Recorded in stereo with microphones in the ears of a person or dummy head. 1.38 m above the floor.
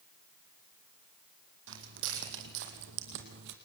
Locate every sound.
1.7 s footsteps: 75° right (ahead or behind), 4.5 m; by 3.6 s 60° right (ahead or behind), 2.5 m